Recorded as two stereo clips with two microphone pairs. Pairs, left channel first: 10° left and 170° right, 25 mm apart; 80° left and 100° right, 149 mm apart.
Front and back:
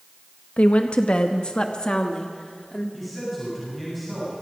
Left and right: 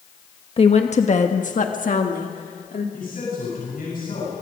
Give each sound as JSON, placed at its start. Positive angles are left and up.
{"t": 0.6, "sound": "a woman speaking", "azimuth_deg": 35, "distance_m": 1.0}
{"t": 2.9, "sound": "a man speaking", "azimuth_deg": 95, "distance_m": 9.0}